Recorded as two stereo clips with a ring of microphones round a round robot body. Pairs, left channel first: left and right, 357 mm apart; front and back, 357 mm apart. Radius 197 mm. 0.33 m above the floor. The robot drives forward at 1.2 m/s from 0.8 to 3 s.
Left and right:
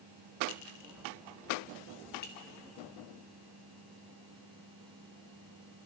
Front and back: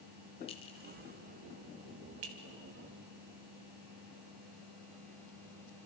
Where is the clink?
70° left, 1.1 m; by 2.3 s 155° left, 1.9 m.